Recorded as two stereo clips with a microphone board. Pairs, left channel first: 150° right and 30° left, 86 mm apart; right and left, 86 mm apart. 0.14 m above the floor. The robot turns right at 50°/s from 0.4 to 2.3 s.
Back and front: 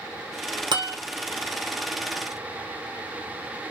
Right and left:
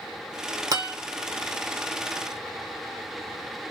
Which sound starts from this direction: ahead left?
A guitar, at 0.7 s.